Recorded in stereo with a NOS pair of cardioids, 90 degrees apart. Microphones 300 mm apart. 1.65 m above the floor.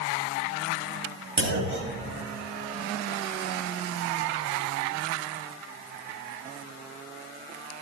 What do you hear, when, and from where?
1.4 s a clunk: 40° right, 1.9 m